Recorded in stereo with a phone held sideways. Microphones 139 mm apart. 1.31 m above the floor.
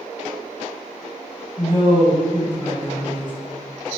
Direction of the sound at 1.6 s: 40° left (ahead or behind).